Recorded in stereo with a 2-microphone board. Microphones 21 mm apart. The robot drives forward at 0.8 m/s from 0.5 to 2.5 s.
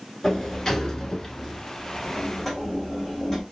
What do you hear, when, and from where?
0.2 s a sliding door: 25° left (ahead or behind), 0.6 m; by 3.4 s 10° left (ahead or behind), 1.4 m